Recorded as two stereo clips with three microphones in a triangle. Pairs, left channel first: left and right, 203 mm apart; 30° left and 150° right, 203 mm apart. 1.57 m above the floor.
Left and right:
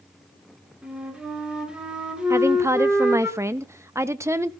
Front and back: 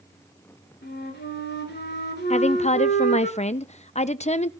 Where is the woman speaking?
20° right, 0.7 m.